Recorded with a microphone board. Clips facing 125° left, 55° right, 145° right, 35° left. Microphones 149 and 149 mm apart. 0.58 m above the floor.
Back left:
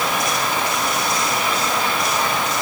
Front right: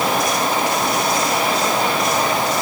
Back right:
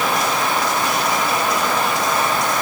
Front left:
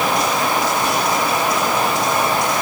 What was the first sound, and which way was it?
Only background noise.